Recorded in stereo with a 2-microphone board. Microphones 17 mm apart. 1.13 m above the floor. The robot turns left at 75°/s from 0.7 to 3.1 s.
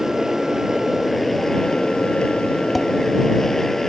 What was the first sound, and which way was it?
A motorcycle, 145° right.